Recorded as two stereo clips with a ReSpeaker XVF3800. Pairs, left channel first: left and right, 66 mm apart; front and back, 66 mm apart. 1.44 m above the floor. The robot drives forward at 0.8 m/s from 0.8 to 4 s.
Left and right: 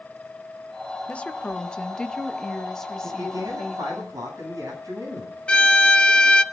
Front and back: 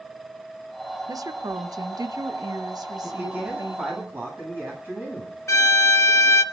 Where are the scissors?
No scissors in this recording.